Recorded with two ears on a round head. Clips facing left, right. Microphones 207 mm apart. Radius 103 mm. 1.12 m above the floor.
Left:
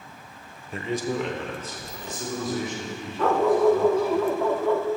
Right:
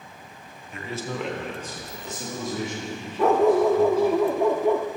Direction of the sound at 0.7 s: 30° left (ahead or behind).